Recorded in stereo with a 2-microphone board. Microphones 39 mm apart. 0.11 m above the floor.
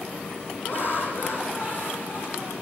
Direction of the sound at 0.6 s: 50° left (ahead or behind).